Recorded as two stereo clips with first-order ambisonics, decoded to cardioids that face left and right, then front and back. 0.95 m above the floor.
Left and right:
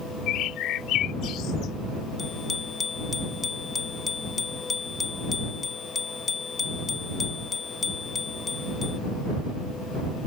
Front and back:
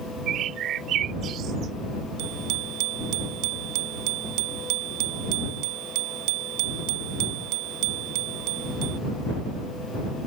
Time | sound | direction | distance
0.3 | a bird | 130° left | ?
2.2 | a bicycle bell | 160° left | ?